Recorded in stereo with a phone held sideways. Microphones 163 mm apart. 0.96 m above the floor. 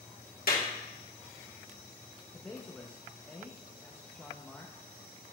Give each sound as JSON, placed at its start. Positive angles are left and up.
{"t": 0.5, "sound": "a clap", "side_deg": 65, "distance_m": 1.5}
{"t": 2.3, "sound": "a man speaking", "side_deg": 10, "distance_m": 0.6}